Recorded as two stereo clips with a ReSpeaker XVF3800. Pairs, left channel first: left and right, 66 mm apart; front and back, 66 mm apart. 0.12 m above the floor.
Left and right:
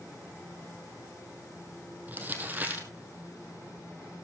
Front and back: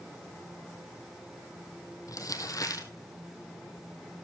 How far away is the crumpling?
About 2 m.